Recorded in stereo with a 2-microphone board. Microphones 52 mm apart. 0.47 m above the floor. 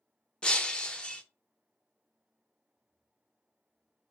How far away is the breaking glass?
About 0.6 m.